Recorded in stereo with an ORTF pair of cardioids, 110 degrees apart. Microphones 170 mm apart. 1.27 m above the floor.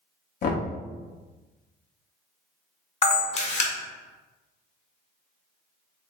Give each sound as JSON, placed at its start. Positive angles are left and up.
{"t": 0.4, "sound": "knocking", "azimuth_deg": 60, "distance_m": 0.9}
{"t": 3.0, "sound": "a camera shutter", "azimuth_deg": 40, "distance_m": 1.1}